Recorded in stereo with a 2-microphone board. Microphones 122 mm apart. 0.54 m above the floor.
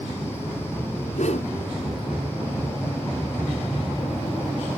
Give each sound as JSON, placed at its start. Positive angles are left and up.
{"t": 1.1, "sound": "a whoosh", "side_deg": 70, "distance_m": 1.1}